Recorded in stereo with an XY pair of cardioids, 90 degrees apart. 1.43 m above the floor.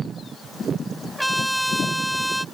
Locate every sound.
1.2 s a trumpet: 5° right